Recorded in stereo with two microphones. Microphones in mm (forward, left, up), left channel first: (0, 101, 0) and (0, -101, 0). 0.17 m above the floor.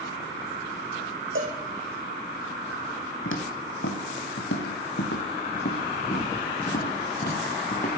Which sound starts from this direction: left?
Footsteps, at 3.2 s.